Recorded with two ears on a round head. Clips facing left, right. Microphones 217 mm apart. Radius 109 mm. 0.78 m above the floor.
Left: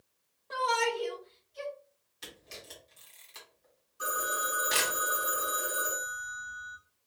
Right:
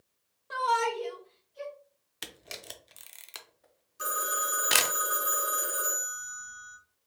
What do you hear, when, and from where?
0.5 s a shout: 15° right (ahead or behind), 0.9 m; by 1.7 s 50° left (ahead or behind), 1.4 m
2.2 s a camera shutter: 70° right (ahead or behind), 0.7 m
4.0 s a phone ringing: 35° right (ahead or behind), 1.1 m